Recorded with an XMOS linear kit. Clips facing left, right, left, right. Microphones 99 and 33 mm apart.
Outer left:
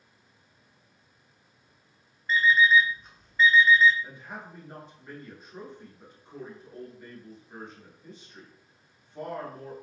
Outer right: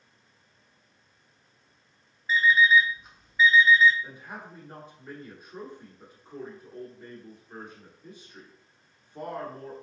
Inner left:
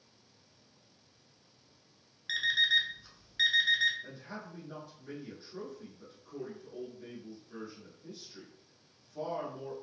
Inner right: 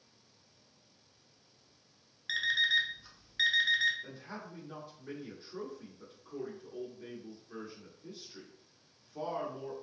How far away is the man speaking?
About 1.3 m.